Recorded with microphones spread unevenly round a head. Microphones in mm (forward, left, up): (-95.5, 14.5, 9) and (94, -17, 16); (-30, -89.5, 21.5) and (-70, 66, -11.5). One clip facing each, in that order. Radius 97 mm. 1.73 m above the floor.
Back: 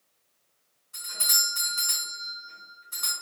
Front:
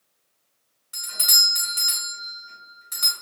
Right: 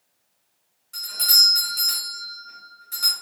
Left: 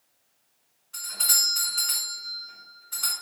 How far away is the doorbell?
About 0.9 m.